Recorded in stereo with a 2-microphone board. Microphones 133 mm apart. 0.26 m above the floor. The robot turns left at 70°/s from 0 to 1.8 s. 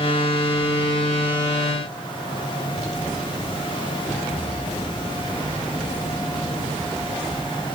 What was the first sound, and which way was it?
Only background noise.